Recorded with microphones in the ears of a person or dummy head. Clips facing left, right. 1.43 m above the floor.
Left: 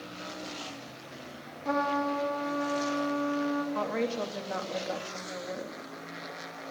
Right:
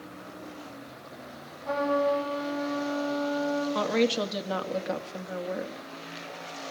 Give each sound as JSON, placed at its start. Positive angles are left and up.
{"t": 1.6, "sound": "a trumpet", "side_deg": 65, "distance_m": 4.0}
{"t": 3.8, "sound": "a woman speaking", "side_deg": -55, "distance_m": 2.5}